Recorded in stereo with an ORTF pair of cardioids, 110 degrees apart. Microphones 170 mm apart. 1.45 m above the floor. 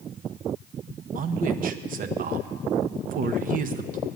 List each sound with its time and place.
1.1 s a man speaking: 55° right, 0.8 m